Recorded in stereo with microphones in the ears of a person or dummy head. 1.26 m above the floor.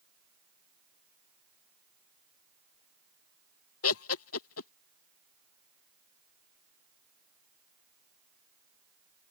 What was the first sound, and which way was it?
Laughter, 70° left (ahead or behind).